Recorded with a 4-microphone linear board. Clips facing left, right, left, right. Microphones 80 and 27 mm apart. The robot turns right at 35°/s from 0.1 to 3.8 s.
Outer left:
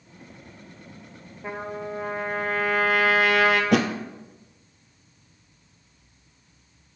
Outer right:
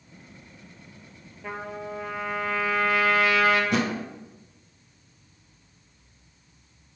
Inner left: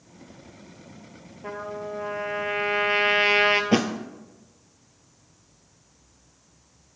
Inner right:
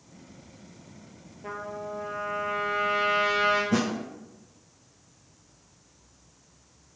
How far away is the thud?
About 0.8 m.